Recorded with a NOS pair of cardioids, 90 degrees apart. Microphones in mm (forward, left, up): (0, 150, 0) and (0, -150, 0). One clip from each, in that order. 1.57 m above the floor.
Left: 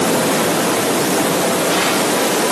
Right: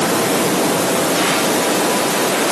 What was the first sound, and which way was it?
Only background noise.